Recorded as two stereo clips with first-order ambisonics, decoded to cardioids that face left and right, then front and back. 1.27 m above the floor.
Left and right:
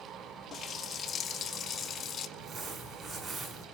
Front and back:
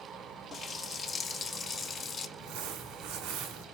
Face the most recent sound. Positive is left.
turn(degrees=-155)